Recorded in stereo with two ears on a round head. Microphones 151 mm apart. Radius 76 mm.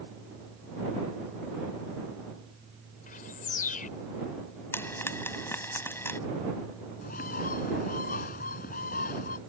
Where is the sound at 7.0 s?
55° left (ahead or behind).